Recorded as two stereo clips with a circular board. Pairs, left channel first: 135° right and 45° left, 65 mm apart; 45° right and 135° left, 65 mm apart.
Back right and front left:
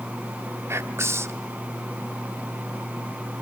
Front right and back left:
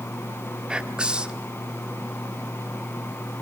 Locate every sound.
0.7 s whispering: 65° left, 1.3 m